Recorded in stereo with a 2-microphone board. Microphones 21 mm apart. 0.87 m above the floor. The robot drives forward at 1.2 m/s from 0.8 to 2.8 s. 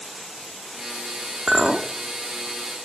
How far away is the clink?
About 1.1 m.